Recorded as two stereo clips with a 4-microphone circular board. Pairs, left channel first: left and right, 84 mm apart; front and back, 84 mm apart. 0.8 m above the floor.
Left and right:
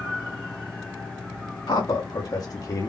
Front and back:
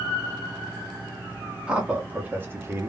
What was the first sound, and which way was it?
A man speaking, 105° left.